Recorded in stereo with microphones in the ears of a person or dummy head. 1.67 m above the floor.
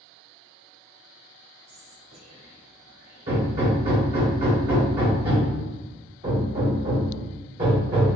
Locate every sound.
1.7 s whispering: 80° right, 1.4 m
3.3 s hammering: 25° right (ahead or behind), 1.6 m